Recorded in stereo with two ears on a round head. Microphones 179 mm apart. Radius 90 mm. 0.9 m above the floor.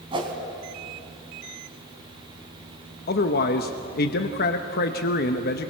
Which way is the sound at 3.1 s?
50° left (ahead or behind).